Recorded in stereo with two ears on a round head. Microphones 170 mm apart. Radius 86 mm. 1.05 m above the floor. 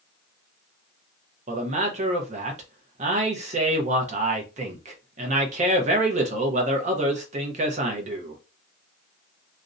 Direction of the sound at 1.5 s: 35° right (ahead or behind).